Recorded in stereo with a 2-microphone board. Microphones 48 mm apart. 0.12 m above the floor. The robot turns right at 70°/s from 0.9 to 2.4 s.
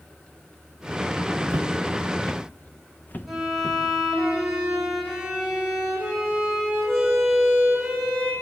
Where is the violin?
5° right (ahead or behind), 8.5 m.